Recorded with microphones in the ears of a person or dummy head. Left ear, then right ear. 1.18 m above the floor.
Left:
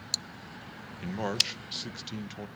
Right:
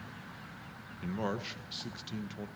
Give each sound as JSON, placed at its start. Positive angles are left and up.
{"t": 1.0, "sound": "a man speaking", "side_deg": 20, "distance_m": 1.2}